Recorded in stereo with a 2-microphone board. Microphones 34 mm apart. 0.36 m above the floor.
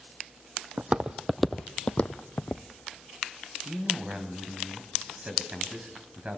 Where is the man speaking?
35° right (ahead or behind), 3 m.